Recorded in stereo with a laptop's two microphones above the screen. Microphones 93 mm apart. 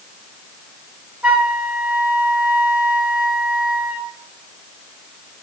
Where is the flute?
10° right (ahead or behind), 0.8 m.